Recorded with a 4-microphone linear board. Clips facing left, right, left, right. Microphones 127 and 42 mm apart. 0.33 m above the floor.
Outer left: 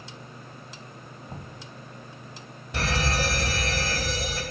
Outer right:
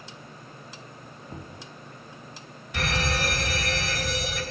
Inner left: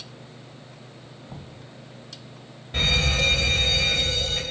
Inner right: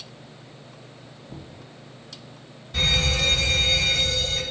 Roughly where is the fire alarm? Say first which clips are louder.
Outer left 1 dB, even; left.